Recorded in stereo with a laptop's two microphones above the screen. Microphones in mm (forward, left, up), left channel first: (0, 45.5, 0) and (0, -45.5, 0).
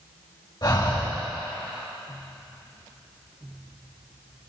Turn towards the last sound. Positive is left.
turn(degrees=50)  # may be behind; listen again after turning